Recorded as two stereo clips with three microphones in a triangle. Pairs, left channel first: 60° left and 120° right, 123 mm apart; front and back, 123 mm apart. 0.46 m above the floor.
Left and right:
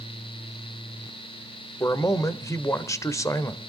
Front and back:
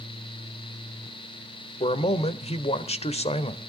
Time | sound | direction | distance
1.8 | a man speaking | straight ahead | 1.3 m